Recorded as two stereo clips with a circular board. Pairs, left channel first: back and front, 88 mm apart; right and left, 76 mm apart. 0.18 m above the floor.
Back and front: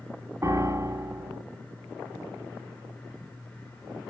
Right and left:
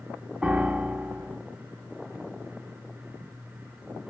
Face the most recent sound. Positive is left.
turn(degrees=25)